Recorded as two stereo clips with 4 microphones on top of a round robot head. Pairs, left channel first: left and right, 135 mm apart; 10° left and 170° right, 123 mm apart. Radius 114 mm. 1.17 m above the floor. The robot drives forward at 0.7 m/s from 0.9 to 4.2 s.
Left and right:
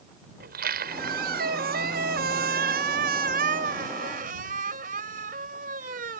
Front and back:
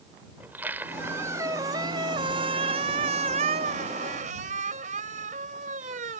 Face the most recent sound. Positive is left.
turn(degrees=-130)